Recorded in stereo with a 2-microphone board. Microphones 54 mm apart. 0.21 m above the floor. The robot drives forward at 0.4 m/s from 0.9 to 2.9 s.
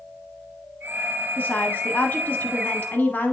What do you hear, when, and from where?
1.4 s a woman speaking: 40° left (ahead or behind), 1.2 m; by 3.3 s 35° left (ahead or behind), 1.3 m